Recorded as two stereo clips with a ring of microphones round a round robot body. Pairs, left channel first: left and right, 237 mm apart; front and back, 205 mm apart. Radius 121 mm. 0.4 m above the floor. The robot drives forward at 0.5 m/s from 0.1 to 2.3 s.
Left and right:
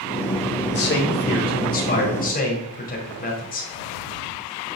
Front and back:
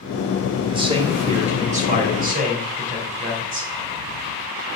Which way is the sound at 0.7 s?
120° left.